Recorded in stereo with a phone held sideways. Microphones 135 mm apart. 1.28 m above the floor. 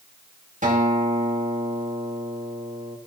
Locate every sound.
0.6 s a guitar: 70° right (ahead or behind), 2.5 m